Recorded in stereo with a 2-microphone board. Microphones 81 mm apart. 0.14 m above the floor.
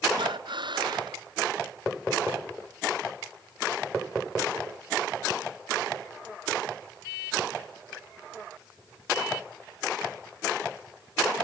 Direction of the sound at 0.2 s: 75° right (ahead or behind).